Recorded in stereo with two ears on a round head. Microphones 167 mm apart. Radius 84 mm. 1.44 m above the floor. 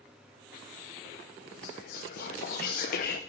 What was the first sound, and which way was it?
Whispering, 50° left (ahead or behind).